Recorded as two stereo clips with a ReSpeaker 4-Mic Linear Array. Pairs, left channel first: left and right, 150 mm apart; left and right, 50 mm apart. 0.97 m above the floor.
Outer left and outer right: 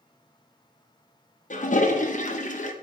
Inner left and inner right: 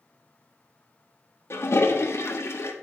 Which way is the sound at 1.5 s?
60° left (ahead or behind).